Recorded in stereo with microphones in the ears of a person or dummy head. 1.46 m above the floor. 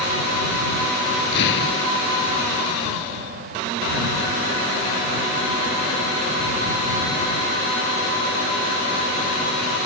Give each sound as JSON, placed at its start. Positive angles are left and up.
{"t": 1.3, "sound": "an explosion", "side_deg": 60}